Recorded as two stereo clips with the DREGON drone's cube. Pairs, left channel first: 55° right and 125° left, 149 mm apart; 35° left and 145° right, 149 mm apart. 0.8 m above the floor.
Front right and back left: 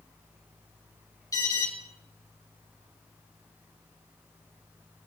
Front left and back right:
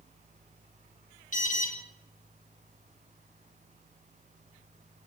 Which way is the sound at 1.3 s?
10° left.